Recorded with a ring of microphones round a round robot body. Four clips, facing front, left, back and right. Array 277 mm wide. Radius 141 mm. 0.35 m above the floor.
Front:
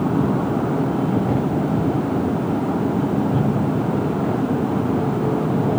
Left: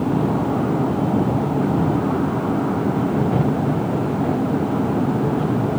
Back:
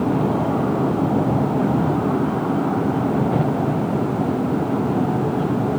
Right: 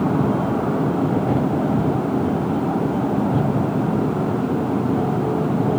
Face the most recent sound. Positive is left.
No sound to turn to.